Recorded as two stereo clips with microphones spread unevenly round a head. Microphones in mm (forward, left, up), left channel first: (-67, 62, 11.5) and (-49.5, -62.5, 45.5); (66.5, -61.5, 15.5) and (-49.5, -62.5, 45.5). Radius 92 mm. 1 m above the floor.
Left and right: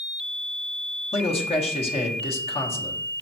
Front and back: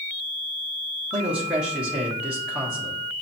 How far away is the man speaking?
About 0.8 m.